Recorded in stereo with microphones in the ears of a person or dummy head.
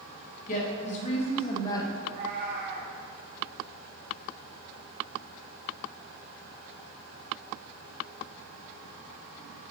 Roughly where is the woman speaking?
Left.